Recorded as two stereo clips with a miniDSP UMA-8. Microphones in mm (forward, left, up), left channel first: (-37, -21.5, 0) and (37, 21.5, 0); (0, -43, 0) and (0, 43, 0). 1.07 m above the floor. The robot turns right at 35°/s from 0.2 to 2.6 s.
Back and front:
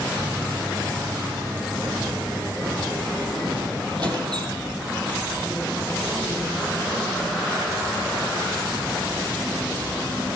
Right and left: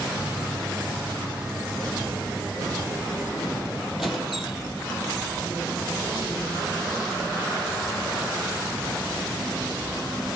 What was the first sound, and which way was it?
A squeak, 5° left.